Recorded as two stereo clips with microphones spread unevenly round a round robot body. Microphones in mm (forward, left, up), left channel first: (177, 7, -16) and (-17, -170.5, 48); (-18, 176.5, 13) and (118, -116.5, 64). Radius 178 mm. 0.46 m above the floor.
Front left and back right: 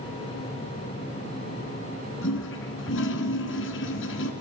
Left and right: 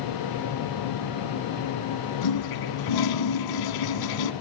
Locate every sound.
2.2 s a toilet flushing: 100° left, 1.3 m